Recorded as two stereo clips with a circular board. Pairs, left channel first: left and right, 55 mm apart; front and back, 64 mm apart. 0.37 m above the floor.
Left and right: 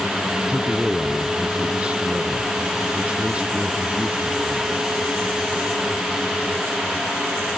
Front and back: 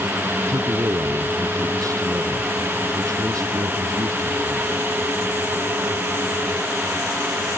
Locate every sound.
0.5 s a man speaking: 160° right